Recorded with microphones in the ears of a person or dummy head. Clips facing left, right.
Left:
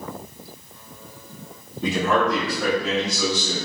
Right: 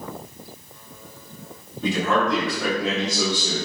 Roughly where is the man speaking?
Left.